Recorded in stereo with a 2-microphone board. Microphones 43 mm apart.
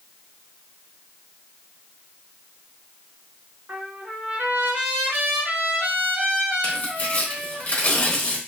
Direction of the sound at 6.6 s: 40° left (ahead or behind).